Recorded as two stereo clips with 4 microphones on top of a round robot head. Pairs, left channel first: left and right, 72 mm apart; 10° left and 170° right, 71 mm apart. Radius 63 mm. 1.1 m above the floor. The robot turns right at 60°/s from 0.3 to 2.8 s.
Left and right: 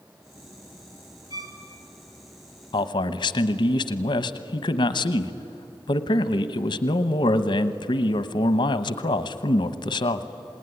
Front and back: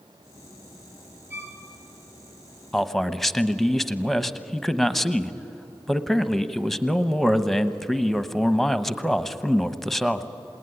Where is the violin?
125° left, 3 m; by 1.6 s 145° left, 3 m.